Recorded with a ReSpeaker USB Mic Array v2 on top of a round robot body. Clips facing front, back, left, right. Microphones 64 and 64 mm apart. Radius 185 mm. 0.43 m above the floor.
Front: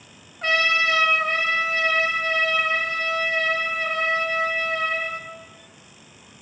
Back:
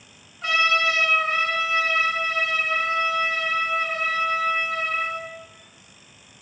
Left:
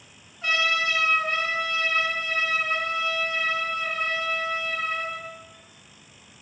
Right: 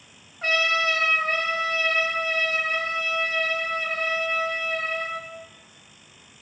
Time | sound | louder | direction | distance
0.4 | a trumpet | even, right 1 dB | 45° right | 0.6 m